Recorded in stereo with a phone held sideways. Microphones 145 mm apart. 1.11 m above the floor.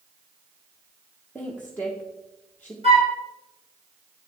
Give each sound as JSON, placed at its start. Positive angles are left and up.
{"t": 1.4, "sound": "a woman speaking", "side_deg": 10, "distance_m": 1.0}
{"t": 2.8, "sound": "a flute", "side_deg": -50, "distance_m": 3.5}